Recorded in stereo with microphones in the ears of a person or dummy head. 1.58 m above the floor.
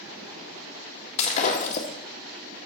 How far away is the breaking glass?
About 1.4 m.